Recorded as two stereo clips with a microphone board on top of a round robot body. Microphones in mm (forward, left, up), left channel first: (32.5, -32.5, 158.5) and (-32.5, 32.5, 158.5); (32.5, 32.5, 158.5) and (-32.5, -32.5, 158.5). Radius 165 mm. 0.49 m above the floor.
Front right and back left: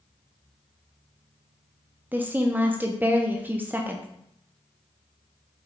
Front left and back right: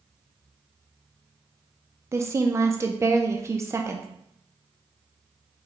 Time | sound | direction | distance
2.1 | a woman speaking | 170° right | 0.7 m